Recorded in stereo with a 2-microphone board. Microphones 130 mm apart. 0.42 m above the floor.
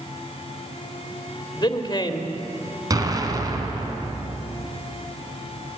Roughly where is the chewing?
No chewing in this recording.